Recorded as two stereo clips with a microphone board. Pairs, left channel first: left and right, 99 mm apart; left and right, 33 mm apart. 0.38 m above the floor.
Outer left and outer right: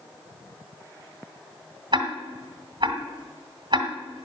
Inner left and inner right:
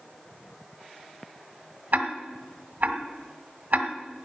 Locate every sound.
1.9 s ticking: 50° right (ahead or behind), 1.8 m